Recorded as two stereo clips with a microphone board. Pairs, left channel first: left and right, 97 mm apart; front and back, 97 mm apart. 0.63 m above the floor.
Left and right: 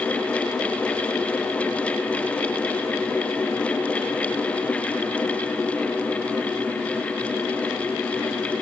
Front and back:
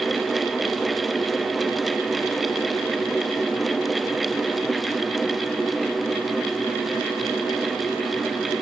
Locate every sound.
Only background noise.